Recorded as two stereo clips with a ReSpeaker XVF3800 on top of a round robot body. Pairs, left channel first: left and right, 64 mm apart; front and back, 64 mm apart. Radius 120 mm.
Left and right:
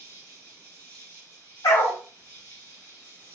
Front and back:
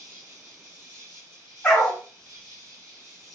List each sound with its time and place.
0.0 s an insect: 145° right, 1.9 m
1.6 s a dog barking: 75° left, 0.5 m